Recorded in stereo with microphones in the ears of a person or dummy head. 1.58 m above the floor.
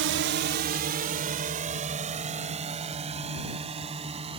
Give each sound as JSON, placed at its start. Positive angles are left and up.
{"t": 0.0, "sound": "a drone", "side_deg": -55}